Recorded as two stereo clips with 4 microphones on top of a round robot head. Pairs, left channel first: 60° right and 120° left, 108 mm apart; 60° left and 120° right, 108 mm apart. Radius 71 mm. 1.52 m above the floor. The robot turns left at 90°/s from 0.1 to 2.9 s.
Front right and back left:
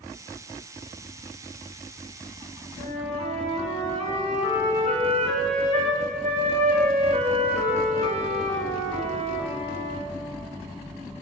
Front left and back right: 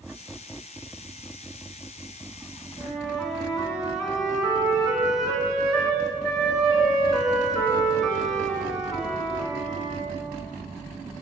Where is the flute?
165° left, 4 m; by 10.1 s 155° left, 4 m.